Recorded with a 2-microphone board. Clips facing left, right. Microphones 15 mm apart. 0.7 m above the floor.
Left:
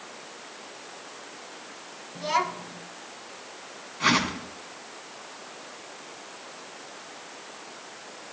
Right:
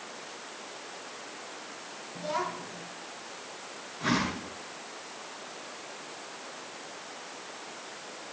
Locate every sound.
2.1 s a child speaking: 70° left (ahead or behind), 3.5 m
4.0 s a whoosh: 75° left (ahead or behind), 4.5 m